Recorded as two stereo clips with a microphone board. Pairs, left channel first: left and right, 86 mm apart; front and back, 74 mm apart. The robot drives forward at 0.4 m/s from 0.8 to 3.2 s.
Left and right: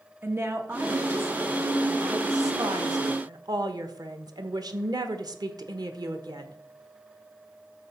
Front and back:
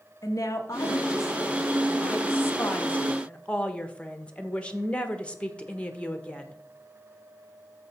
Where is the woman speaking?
35° right, 1.6 m; by 6.6 s 70° right, 1.0 m.